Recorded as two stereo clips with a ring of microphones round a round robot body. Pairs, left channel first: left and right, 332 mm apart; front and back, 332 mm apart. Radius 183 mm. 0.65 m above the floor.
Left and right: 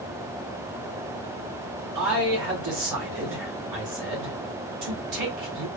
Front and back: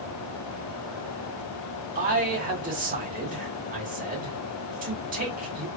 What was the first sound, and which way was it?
A man speaking, 115° right.